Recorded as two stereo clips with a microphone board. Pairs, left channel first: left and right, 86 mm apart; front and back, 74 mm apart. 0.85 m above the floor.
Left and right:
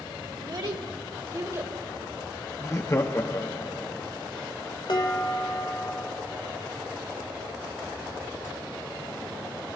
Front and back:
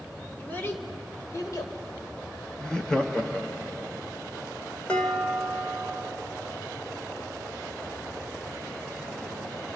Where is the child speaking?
70° right, 1.8 m; by 1.8 s 35° right, 2.5 m.